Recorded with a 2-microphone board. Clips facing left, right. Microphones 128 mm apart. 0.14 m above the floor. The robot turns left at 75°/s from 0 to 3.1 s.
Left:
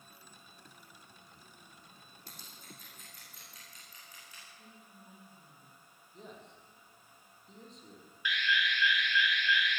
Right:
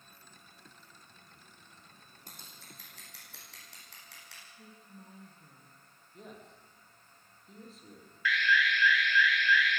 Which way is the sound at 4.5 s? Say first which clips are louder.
Right 3 dB; 25° right (ahead or behind).